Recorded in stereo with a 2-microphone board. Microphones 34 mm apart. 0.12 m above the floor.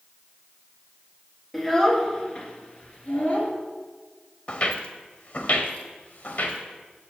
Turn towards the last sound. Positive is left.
turn(degrees=60)  # may be behind; listen again after turning